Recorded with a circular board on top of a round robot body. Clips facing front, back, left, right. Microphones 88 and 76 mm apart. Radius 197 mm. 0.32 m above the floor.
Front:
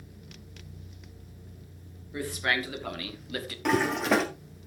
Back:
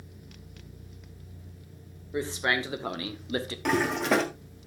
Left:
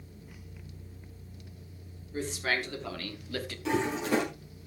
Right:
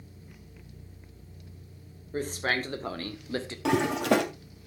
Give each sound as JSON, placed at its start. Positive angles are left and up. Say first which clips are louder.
{"t": 2.1, "sound": "a man speaking", "louder": "back 2 dB, right 2 dB", "azimuth_deg": -120, "distance_m": 2.5}
{"t": 3.6, "sound": "a toilet flushing", "louder": "front 1 dB, right 4 dB", "azimuth_deg": -90, "distance_m": 2.0}